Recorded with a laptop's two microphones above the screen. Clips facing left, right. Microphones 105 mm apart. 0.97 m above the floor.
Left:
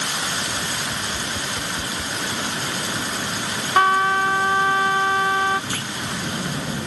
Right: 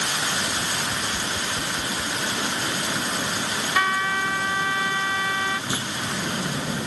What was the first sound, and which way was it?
Tapping, 5° left (ahead or behind).